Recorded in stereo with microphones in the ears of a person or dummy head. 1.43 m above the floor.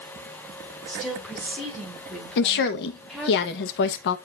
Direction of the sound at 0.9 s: Centre (ahead or behind).